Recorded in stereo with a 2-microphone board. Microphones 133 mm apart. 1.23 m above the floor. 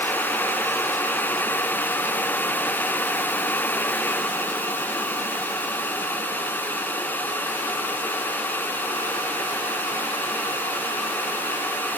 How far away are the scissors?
No scissors in this recording.